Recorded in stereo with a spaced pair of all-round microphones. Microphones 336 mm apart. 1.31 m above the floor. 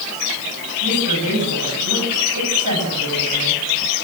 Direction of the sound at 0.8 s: 60° right (ahead or behind).